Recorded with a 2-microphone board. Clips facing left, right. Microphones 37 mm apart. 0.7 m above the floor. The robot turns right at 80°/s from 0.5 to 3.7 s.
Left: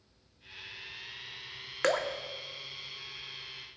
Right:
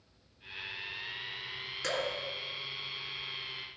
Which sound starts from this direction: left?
Dripping, at 1.8 s.